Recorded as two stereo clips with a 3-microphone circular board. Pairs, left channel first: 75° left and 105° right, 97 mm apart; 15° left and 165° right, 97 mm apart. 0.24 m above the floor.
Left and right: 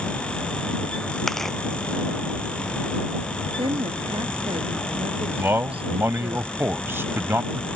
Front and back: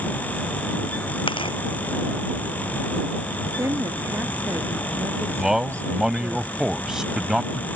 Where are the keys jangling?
No keys jangling in this recording.